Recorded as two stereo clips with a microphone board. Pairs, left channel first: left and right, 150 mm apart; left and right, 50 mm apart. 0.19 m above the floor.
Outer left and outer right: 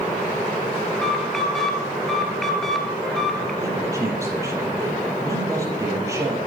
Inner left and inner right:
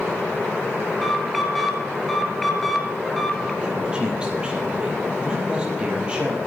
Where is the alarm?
5° left (ahead or behind), 2.5 m.